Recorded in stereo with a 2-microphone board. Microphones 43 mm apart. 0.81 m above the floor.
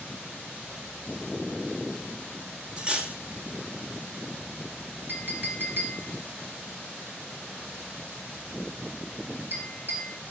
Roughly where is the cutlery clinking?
Centre.